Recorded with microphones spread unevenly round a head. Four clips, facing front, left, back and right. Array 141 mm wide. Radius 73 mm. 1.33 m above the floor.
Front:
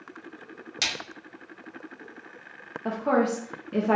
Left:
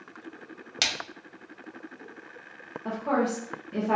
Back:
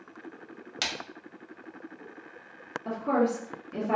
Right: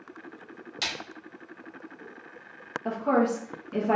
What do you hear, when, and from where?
0.8 s a splash: 85° left, 1.0 m
2.9 s a woman speaking: 5° right, 1.0 m